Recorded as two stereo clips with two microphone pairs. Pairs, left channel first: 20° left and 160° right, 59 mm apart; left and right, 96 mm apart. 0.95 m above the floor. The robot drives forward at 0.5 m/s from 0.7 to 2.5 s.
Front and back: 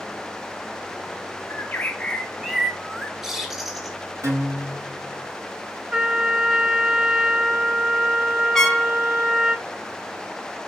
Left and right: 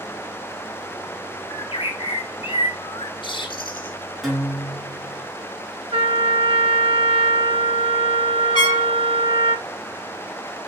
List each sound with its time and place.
1.5 s a bird: 65° left, 0.6 m; by 4.0 s 115° left, 0.6 m
4.2 s a guitar: straight behind, 1.8 m
5.9 s a trumpet: 90° right, 0.9 m
8.6 s a trumpet: 100° left, 1.0 m